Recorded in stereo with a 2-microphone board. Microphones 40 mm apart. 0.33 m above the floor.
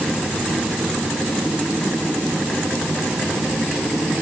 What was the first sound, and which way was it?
Only background noise.